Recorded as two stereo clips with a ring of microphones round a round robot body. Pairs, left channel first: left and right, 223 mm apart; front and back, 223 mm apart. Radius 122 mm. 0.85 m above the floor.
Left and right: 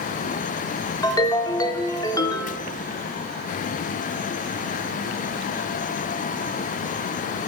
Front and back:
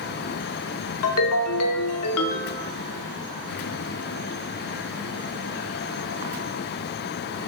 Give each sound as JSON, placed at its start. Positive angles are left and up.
{"t": 1.0, "sound": "a ringtone", "azimuth_deg": 15, "distance_m": 0.6}